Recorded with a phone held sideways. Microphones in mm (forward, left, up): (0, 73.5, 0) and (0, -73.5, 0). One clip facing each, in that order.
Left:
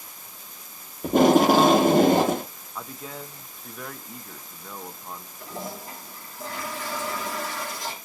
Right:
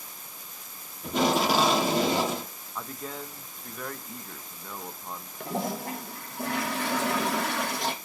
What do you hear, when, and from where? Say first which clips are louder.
1.0 s tape being pulled: left 8 dB; 55° left (ahead or behind), 0.8 m
2.8 s a man speaking: even; centre (ahead or behind), 0.6 m
5.4 s a toilet flushing: right 6 dB; 70° right (ahead or behind), 1.1 m